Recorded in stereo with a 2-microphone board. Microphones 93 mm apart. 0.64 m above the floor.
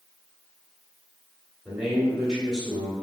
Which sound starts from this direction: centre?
A man speaking, at 1.6 s.